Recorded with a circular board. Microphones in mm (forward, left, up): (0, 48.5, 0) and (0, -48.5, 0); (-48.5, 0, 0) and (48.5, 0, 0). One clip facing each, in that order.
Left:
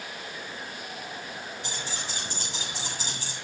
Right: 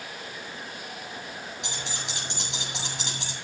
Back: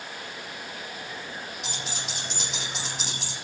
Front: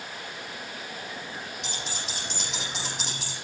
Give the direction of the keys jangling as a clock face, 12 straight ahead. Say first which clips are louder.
Even, even; 3 o'clock.